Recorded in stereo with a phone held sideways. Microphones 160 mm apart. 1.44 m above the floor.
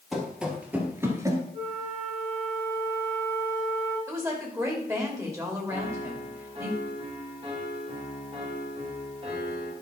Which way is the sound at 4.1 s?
20° right (ahead or behind).